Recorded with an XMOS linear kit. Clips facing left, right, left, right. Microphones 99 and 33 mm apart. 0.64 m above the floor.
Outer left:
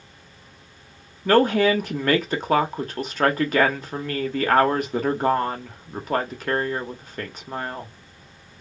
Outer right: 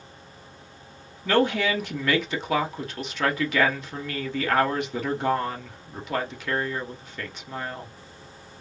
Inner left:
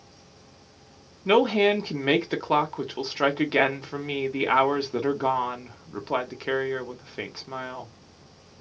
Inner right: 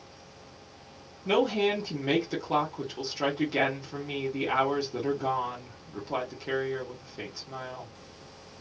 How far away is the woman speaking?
About 0.8 m.